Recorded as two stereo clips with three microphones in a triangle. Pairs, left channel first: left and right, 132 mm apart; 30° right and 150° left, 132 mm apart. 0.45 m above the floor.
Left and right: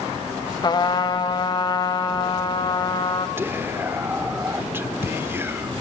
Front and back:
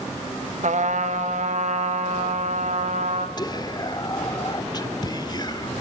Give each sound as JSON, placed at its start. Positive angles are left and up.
{"t": 0.6, "sound": "a trumpet", "azimuth_deg": 145, "distance_m": 1.3}
{"t": 3.4, "sound": "whispering", "azimuth_deg": -30, "distance_m": 0.8}